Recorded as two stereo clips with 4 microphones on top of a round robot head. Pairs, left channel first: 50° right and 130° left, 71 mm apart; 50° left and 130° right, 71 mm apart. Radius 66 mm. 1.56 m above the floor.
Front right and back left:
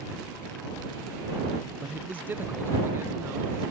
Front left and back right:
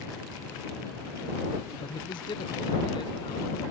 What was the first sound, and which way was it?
A man speaking, 55° left.